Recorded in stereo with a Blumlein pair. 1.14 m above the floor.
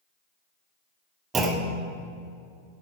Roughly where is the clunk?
Ahead.